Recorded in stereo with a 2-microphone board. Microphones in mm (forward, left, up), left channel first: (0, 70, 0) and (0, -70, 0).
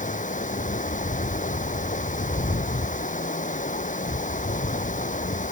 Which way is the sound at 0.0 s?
75° left (ahead or behind).